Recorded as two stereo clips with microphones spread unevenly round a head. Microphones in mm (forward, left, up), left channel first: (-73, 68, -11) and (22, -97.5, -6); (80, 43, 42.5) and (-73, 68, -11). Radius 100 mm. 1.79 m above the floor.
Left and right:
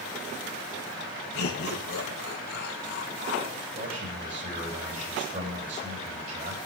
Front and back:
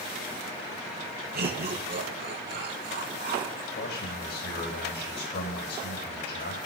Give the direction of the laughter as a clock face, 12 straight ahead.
7 o'clock.